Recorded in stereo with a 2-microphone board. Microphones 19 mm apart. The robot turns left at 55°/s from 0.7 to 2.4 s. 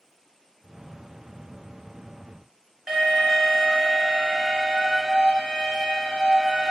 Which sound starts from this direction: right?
An alarm, at 2.9 s.